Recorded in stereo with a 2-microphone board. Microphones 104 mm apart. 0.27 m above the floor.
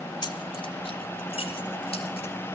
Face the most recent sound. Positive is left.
turn(degrees=65)  # may be behind; listen again after turning